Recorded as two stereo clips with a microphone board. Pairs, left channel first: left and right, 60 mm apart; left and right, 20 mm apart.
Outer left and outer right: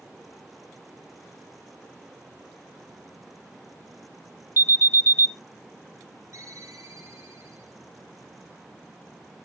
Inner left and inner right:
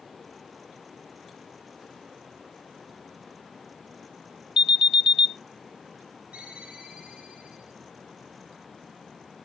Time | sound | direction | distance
4.6 | an alarm | 45° right (ahead or behind) | 1.1 m
6.3 | a ringtone | 55° right (ahead or behind) | 7.5 m